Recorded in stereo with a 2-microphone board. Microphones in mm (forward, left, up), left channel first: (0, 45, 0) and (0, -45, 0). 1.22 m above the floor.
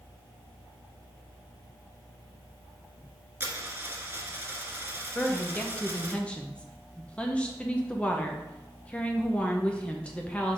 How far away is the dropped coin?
About 1.5 m.